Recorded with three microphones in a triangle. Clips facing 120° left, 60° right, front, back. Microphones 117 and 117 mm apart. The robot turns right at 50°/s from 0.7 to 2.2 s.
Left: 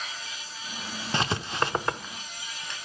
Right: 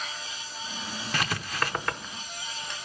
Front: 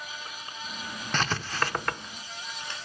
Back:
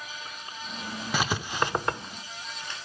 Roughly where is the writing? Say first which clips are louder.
Left 3 dB, back 1 dB; left.